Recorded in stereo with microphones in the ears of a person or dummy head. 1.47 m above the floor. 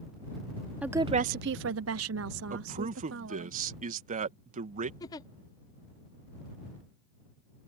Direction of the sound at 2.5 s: 40° right (ahead or behind).